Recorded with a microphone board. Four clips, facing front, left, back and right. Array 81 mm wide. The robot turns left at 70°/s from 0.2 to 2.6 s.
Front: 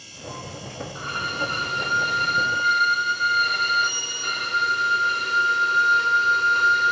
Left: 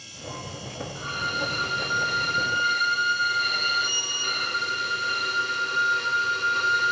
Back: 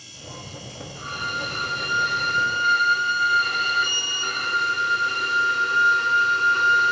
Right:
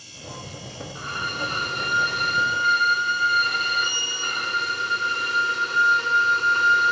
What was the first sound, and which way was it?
A violin, 50° right.